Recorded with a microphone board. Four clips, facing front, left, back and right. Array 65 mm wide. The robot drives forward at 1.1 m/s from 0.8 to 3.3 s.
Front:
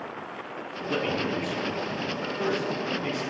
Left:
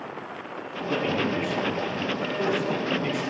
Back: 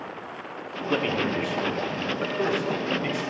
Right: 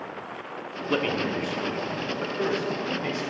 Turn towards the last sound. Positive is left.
turn(degrees=-170)